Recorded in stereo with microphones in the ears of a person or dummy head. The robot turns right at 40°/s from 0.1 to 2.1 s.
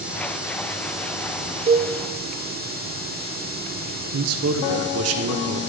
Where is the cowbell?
35° right (ahead or behind), 1.3 m; by 1.9 s 25° right (ahead or behind), 1.3 m.